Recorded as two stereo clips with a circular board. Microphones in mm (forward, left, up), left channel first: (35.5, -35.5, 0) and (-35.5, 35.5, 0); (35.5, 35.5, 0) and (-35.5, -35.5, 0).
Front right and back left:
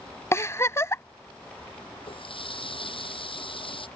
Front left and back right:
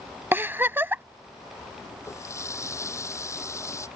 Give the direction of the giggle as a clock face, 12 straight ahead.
3 o'clock.